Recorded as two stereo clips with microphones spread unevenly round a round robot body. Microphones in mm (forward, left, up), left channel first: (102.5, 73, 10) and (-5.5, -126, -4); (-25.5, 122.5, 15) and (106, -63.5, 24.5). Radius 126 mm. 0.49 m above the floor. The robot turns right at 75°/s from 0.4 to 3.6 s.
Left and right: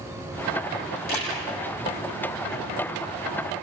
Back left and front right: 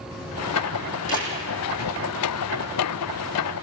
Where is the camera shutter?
65° left, 9.5 m; by 1.3 s 85° left, 9.5 m.